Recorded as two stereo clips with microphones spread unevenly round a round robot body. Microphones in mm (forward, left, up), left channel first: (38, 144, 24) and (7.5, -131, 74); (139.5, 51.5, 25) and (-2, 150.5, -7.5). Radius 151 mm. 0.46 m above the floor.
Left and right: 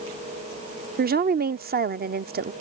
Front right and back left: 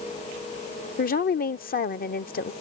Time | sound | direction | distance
1.0 | a woman speaking | 45° right | ?